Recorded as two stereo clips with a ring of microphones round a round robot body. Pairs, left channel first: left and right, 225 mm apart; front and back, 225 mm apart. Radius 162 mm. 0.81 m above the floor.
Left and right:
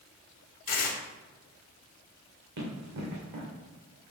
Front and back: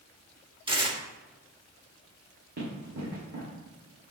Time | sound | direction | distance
0.7 | tearing paper | 115° left | 1.9 m
2.6 | running footsteps | 115° right | 3.5 m